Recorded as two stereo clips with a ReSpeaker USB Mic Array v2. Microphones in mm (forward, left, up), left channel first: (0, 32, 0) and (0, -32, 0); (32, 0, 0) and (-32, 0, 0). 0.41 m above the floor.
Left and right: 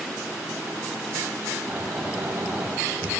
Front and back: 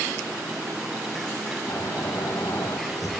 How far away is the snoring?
About 8.5 m.